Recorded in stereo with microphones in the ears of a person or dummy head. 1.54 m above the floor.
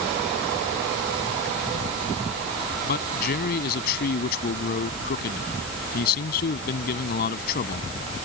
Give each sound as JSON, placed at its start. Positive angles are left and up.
{"t": 2.8, "sound": "a man speaking", "side_deg": 55}